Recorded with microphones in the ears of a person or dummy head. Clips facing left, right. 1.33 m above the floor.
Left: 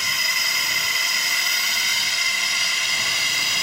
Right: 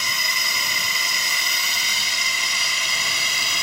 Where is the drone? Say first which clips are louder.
Right 2 dB; 80° right.